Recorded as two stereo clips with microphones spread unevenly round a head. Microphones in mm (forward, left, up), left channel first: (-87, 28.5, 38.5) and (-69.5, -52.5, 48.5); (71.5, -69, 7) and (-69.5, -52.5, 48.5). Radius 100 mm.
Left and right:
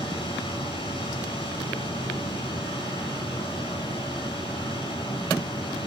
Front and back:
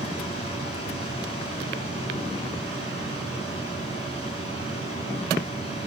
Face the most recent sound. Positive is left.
turn(degrees=55)